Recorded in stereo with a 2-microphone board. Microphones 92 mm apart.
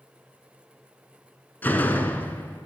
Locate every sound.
1.6 s a door slam: 20° left (ahead or behind), 0.8 m